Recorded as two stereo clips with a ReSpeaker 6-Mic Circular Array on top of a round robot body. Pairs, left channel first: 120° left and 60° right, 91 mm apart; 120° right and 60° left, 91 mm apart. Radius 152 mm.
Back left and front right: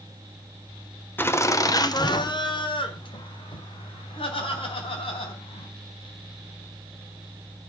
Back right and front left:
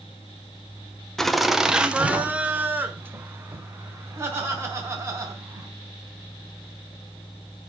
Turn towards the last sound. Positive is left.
turn(degrees=120)